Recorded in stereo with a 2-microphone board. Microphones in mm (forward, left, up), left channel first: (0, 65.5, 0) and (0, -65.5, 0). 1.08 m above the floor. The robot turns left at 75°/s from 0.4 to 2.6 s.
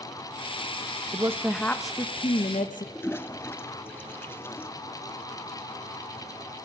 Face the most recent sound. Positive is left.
turn(degrees=15)  # may be behind; listen again after turning